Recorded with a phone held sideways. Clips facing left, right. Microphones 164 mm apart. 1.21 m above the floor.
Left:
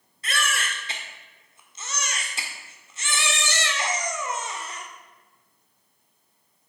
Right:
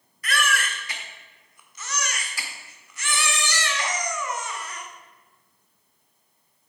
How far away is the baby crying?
About 1.5 m.